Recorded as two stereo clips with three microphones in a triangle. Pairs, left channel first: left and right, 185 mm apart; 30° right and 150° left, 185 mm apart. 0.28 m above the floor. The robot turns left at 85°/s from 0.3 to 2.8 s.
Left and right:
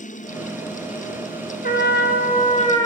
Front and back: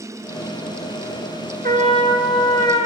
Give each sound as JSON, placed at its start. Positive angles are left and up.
{"t": 1.6, "sound": "a trumpet", "azimuth_deg": 120, "distance_m": 0.9}